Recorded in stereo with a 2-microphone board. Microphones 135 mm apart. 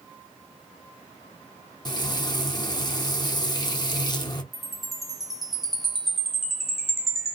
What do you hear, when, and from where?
1.9 s frying: 30° left (ahead or behind), 0.6 m
4.5 s a chime: centre (ahead or behind), 1.1 m